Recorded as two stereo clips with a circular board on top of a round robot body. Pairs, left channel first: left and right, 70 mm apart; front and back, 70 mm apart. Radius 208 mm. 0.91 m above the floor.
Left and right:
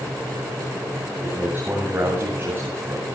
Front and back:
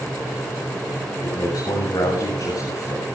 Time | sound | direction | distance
1.2 | a man speaking | 25° right | 10 m